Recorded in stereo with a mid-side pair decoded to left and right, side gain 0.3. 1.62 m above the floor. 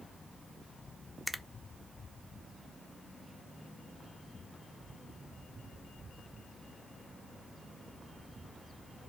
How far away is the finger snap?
About 0.5 m.